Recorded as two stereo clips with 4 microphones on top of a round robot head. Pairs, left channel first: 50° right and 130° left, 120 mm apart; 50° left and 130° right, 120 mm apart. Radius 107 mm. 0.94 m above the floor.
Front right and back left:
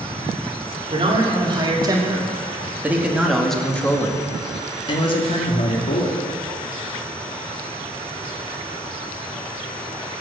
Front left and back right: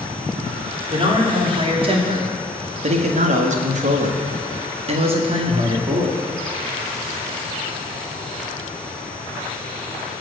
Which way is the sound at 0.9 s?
Straight behind.